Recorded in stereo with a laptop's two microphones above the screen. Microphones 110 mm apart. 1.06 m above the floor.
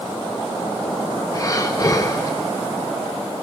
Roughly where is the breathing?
Left.